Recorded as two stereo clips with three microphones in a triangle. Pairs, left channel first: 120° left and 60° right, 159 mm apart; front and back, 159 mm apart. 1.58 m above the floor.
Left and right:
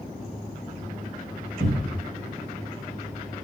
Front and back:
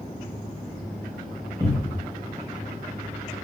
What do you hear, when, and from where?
1.6 s a cupboard door: 70° right, 0.6 m